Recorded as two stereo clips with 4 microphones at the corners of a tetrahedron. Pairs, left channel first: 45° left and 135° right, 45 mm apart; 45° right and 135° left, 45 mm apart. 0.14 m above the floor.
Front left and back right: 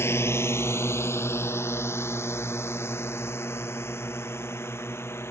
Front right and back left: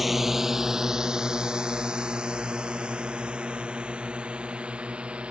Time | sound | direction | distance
0.0 | a drone | 50° left | ?